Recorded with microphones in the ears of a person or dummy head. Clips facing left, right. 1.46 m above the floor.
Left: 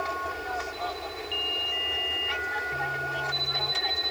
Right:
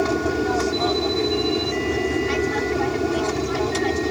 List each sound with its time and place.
0.0 s an aircraft: 60° right (ahead or behind)